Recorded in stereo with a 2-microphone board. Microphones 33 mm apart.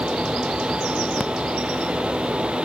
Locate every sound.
Only background noise.